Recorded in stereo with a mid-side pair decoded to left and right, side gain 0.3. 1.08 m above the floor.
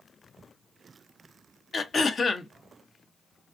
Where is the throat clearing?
55° left, 0.6 m.